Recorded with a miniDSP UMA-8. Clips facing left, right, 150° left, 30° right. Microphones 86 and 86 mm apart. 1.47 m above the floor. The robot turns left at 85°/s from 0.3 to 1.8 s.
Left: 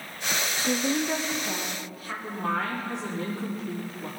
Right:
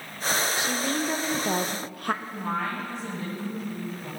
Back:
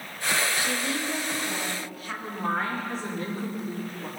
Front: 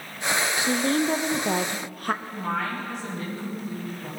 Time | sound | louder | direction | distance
0.6 | a woman speaking | left 1 dB, front 6 dB | 45° left | 0.9 m
2.2 | a woman speaking | left 1 dB, even | 100° left | 5 m